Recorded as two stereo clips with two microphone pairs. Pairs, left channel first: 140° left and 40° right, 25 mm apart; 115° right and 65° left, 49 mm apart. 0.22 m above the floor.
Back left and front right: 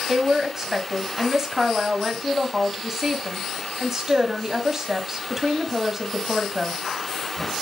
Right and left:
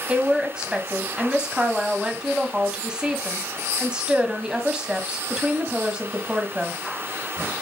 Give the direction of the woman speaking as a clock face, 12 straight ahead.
12 o'clock.